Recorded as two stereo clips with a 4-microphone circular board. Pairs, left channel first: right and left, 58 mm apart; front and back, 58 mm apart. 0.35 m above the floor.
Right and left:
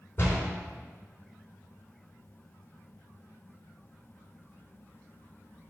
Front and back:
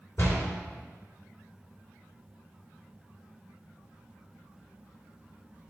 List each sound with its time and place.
0.2 s a door slam: 40° right, 3 m